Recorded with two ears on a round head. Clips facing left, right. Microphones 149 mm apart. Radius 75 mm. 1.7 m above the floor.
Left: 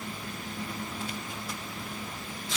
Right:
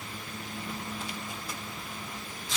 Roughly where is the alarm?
I don't hear an alarm.